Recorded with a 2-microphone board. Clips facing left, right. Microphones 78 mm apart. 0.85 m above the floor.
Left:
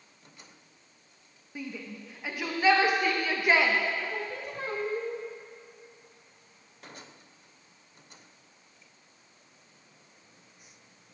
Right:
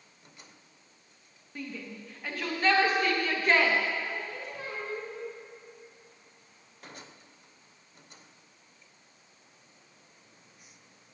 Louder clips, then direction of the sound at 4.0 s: Left 2 dB; 55° left (ahead or behind).